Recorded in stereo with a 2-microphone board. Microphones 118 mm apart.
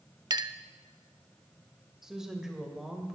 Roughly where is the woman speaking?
Centre.